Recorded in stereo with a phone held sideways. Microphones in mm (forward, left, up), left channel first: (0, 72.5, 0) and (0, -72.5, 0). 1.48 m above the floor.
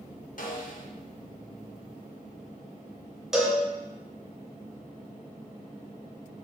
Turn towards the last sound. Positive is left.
turn(degrees=-5)  # may be behind; listen again after turning